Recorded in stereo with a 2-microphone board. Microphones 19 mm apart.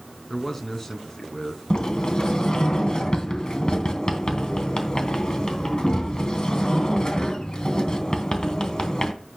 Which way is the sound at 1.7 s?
40° left (ahead or behind).